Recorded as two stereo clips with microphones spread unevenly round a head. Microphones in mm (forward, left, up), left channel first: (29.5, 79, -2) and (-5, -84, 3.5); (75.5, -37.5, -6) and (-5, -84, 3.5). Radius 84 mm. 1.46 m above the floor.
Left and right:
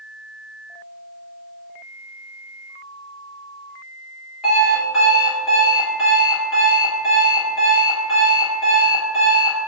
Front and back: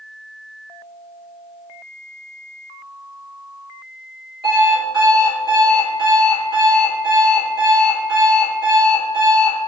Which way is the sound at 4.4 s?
170° left.